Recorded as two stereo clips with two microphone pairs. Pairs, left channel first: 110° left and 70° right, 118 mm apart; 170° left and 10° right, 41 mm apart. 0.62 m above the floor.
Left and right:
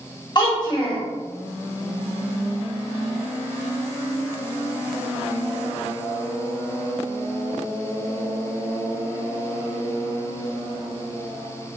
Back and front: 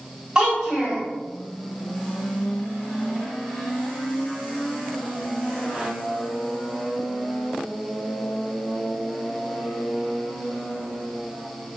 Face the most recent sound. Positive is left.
turn(degrees=60)